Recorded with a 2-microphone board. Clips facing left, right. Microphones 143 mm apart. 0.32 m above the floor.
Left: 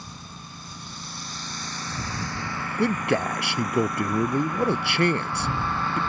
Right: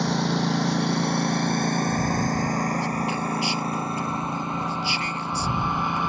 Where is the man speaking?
65° left (ahead or behind).